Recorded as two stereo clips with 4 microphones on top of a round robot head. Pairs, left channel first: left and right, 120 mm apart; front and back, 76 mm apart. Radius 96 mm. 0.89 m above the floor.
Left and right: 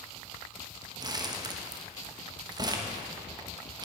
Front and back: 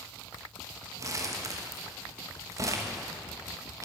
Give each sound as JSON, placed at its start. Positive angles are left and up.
{"t": 1.0, "sound": "crumpling", "azimuth_deg": -140, "distance_m": 1.3}